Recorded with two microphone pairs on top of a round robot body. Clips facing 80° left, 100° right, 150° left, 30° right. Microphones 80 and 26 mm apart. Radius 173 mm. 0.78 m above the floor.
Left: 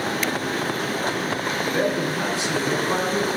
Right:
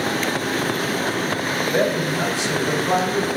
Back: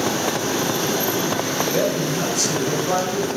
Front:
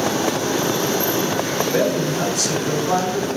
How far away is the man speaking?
About 4.5 m.